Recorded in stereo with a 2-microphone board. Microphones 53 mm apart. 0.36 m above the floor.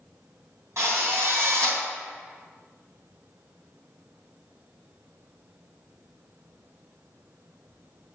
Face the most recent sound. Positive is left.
turn(degrees=-65)  # may be behind; listen again after turning